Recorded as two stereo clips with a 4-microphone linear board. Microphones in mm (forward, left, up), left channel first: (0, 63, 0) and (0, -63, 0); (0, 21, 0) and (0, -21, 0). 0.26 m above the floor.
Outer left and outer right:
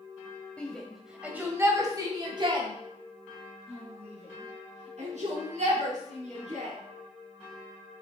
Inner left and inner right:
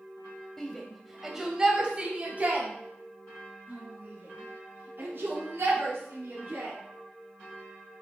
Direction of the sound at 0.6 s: 10° left (ahead or behind).